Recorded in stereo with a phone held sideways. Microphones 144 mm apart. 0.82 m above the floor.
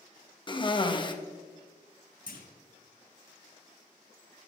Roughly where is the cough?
Left.